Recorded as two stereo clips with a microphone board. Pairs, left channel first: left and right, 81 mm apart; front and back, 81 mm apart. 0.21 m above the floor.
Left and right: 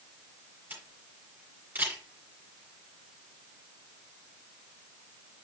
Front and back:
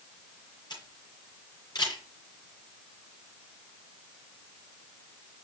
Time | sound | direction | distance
0.7 | a camera shutter | 20° right | 6 m